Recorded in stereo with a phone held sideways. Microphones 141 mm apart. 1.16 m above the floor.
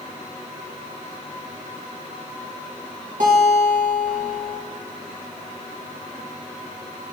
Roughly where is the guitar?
Right.